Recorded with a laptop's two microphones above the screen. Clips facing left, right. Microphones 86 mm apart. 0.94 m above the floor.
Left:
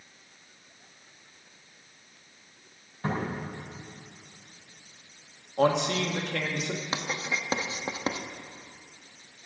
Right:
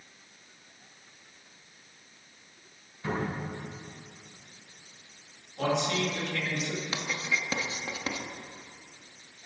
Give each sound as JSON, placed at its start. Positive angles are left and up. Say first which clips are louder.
{"t": 3.0, "sound": "a cupboard door", "louder": "left 1 dB", "side_deg": 45, "distance_m": 4.5}
{"t": 5.6, "sound": "a man speaking", "louder": "left 4 dB", "side_deg": 55, "distance_m": 1.5}
{"t": 6.9, "sound": "writing", "louder": "left 1 dB", "side_deg": 30, "distance_m": 0.7}